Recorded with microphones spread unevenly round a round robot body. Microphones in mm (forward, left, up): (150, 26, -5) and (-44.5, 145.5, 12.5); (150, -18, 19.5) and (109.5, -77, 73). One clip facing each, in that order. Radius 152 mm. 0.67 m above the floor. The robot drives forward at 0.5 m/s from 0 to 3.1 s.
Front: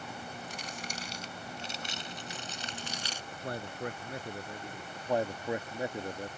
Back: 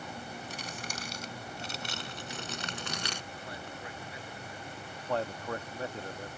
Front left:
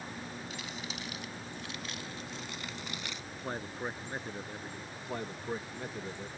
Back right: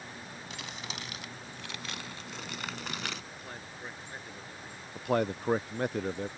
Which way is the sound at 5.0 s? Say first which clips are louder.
Front 3 dB, back right 12 dB; 90° right.